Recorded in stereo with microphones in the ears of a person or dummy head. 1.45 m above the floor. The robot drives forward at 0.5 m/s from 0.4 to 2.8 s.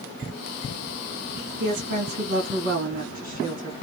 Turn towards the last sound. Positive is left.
turn(degrees=-40)  # may be behind; listen again after turning